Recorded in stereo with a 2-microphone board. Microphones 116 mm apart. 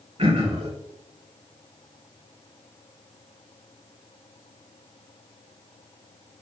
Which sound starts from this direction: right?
Throat clearing, at 0.2 s.